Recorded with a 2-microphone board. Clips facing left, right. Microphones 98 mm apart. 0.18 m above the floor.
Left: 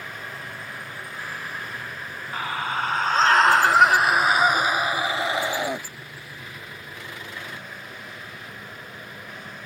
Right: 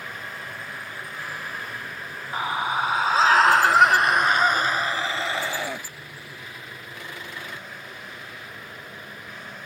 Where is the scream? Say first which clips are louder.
Right 2 dB; 20° right (ahead or behind); by 5.8 s 20° left (ahead or behind).